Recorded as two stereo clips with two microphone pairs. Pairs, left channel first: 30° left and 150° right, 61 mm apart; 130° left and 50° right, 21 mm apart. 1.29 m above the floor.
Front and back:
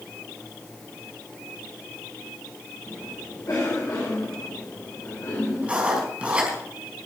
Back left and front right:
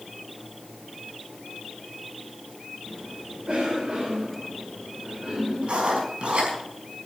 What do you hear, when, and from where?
2.9 s a cough: 5° right, 5 m
5.6 s writing: 80° right, 4.5 m